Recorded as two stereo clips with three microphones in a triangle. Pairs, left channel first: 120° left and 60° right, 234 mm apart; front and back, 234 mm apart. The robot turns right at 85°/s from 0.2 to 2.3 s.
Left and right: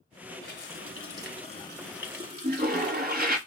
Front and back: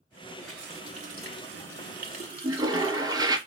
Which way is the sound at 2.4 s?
105° right.